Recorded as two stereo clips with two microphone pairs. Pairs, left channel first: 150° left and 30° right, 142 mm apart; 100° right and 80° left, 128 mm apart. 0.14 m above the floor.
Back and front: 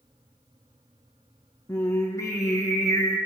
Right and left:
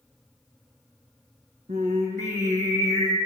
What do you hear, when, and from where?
1.7 s singing: 85° left, 2 m